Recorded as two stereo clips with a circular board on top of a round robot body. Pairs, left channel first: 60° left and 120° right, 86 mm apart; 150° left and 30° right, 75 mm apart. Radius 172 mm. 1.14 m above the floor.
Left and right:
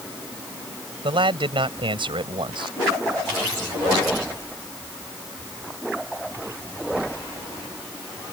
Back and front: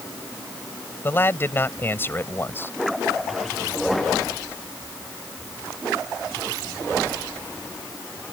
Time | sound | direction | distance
1.0 | a man speaking | 145° right | ?